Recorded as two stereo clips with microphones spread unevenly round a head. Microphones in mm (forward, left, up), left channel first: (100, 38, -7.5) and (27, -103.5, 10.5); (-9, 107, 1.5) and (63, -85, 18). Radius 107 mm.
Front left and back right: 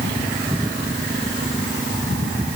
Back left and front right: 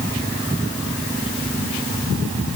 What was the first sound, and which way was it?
Only background noise.